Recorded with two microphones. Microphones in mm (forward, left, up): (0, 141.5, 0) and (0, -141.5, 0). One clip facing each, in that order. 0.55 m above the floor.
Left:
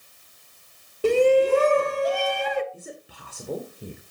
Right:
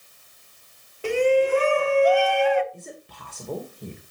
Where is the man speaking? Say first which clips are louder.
Even; 5° left (ahead or behind), 2 m.